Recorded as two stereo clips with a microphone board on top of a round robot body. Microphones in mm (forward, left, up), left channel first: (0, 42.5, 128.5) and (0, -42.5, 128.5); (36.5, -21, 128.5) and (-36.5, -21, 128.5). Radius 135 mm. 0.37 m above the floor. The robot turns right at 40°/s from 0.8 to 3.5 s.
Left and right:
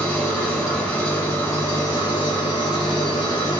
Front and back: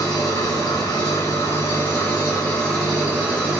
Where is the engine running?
10° left, 1.4 m; by 3.6 s 120° left, 1.4 m.